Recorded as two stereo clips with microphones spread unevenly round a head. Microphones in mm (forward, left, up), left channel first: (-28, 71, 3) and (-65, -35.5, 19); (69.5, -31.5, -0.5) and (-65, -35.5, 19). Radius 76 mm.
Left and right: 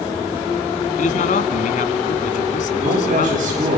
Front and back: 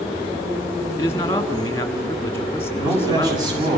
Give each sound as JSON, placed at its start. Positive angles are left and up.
{"t": 1.0, "sound": "a man speaking", "azimuth_deg": 75, "distance_m": 1.5}
{"t": 2.8, "sound": "a man speaking", "azimuth_deg": -115, "distance_m": 7.0}